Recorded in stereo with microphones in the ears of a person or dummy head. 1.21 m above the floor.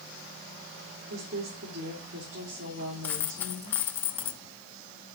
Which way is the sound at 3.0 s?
10° left (ahead or behind).